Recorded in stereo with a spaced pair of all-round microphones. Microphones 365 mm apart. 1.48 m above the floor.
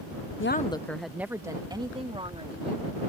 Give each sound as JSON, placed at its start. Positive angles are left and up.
{"t": 0.4, "sound": "a woman speaking", "side_deg": 40}